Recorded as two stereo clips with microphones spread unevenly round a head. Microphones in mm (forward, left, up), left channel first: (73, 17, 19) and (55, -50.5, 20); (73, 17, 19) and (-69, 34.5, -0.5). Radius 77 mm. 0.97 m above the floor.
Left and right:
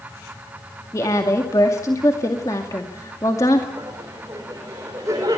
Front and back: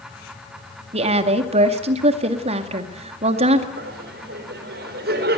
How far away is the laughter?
About 3.5 m.